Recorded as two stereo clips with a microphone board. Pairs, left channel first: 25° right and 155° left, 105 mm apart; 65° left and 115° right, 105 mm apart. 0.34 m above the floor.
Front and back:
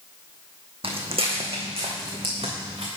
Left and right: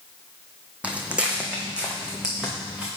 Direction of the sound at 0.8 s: 170° left.